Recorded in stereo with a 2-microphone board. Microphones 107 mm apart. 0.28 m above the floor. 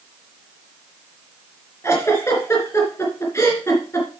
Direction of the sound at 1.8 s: 25° left (ahead or behind).